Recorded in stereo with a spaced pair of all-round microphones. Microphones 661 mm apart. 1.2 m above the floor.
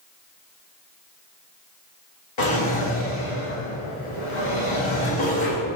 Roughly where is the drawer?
Left.